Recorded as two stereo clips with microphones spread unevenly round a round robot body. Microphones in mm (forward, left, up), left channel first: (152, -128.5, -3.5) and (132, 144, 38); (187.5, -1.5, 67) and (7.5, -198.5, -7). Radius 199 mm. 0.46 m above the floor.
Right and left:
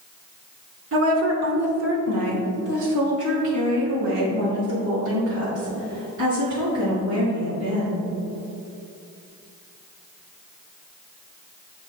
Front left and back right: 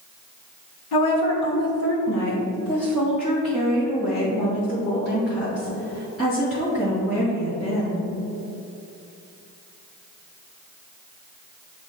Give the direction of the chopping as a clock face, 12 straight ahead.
I don't hear chopping.